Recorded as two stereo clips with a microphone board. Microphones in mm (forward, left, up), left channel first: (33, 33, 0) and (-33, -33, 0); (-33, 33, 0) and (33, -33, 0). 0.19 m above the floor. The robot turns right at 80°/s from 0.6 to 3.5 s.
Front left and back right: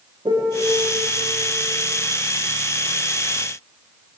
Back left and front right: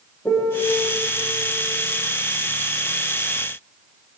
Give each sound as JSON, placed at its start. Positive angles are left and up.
{"t": 0.2, "sound": "a piano", "azimuth_deg": -170, "distance_m": 6.0}